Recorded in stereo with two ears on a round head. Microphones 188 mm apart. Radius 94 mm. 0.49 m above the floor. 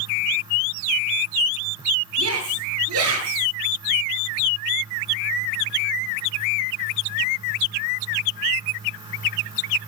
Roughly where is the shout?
Right.